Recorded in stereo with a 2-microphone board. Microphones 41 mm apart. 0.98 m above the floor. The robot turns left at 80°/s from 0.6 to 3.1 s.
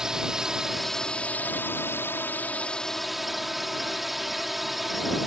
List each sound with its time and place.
0.0 s a drone: 165° right; by 5.3 s 5° right